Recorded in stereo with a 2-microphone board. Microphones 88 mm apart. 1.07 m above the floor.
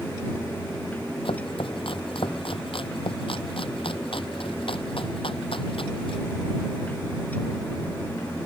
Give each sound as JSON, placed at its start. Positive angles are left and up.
{"t": 1.2, "sound": "chopping", "side_deg": 80}